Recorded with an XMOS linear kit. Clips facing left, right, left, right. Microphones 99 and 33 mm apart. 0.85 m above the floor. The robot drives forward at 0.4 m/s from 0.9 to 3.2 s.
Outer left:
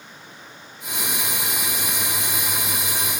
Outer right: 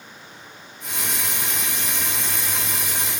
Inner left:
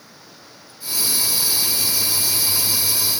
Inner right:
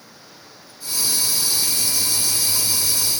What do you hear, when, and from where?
Only background noise.